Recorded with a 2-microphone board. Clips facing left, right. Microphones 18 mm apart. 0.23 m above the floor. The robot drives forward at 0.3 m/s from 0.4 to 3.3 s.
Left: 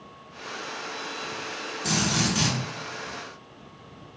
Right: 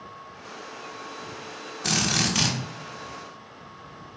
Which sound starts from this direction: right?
A drill, at 1.8 s.